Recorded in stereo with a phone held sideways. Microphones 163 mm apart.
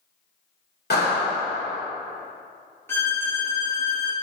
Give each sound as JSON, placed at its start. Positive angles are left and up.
{"t": 0.9, "sound": "a clap", "side_deg": 70, "distance_m": 2.5}
{"t": 2.9, "sound": "a violin", "side_deg": 15, "distance_m": 1.1}